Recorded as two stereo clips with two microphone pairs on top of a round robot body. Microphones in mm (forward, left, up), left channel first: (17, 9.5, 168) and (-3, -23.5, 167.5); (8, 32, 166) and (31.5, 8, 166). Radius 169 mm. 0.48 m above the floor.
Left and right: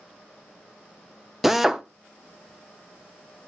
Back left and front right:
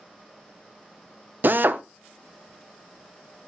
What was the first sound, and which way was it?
A drill, 40° right.